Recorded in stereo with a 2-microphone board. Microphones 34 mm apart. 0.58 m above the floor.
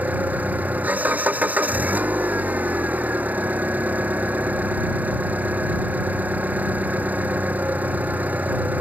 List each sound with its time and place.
0.0 s an engine running: 50° right (ahead or behind)